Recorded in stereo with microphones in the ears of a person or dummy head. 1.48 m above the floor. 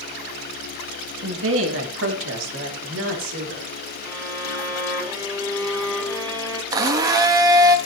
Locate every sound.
1.2 s a woman speaking: 85° right, 2.5 m; by 3.6 s 75° right (ahead or behind), 4.5 m
4.0 s a violin: 10° left (ahead or behind), 7.5 m
6.7 s a blender: 20° right (ahead or behind), 0.9 m